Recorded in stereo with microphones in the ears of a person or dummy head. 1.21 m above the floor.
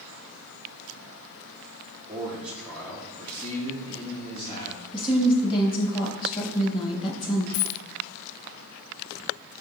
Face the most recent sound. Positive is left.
turn(degrees=50)  # may be behind; listen again after turning